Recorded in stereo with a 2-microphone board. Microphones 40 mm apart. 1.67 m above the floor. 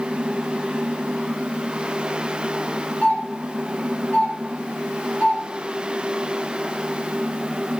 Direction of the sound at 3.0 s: 45° left (ahead or behind).